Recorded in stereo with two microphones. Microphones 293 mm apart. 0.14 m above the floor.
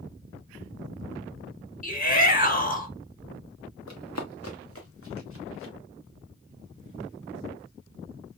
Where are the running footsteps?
75° left (ahead or behind), 0.9 m; by 5.7 s 50° left (ahead or behind), 3 m.